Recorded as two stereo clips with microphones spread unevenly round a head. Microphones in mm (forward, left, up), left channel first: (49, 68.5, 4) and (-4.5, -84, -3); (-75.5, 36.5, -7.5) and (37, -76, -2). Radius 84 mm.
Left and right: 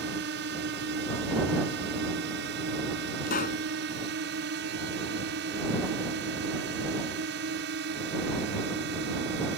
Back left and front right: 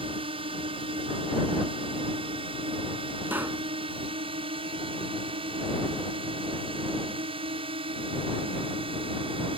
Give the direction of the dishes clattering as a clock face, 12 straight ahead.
I don't hear dishes clattering.